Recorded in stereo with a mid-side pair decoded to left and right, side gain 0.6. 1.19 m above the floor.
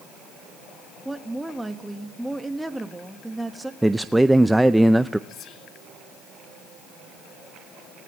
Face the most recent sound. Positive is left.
turn(degrees=50)